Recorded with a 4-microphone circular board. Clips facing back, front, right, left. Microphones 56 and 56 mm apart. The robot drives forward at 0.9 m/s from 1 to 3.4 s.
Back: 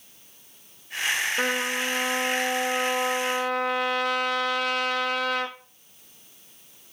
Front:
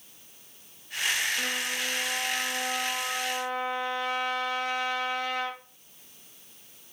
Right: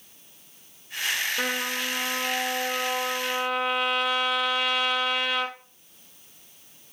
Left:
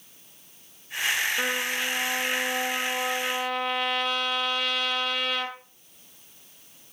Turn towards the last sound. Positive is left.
turn(degrees=-175)